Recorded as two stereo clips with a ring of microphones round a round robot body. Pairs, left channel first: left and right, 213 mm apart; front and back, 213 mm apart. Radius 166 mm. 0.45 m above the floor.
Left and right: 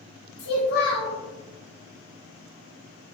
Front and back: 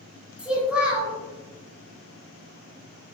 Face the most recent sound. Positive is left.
turn(degrees=95)